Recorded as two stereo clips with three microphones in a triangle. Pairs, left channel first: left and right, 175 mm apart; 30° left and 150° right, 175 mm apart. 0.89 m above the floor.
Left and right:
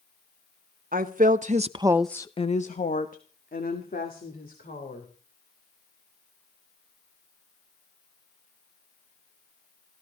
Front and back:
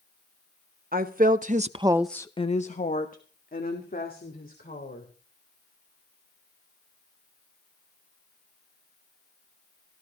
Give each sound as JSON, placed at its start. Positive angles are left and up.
{"t": 0.9, "sound": "a woman speaking", "azimuth_deg": -120, "distance_m": 1.5}